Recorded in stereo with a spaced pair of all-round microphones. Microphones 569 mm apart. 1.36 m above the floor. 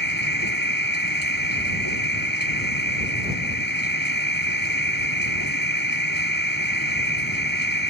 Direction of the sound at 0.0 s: 40° left (ahead or behind).